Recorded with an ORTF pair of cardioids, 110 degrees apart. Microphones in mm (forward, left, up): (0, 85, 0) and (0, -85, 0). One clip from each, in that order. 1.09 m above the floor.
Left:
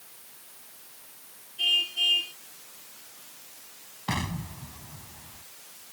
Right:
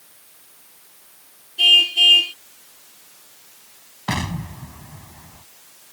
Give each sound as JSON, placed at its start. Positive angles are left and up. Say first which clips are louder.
{"t": 1.6, "sound": "a car horn", "louder": "right 12 dB", "azimuth_deg": -65}
{"t": 4.1, "sound": "an explosion", "louder": "right 6 dB", "azimuth_deg": -35}